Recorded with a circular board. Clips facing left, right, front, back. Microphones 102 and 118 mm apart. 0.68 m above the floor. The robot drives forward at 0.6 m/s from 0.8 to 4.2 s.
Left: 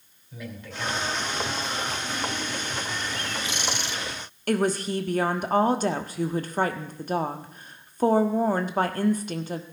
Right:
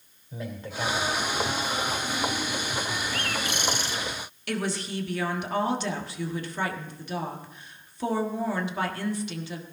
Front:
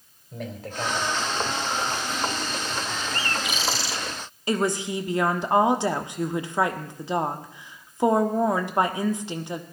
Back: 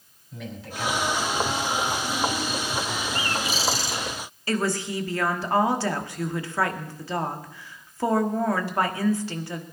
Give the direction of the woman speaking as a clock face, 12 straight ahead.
10 o'clock.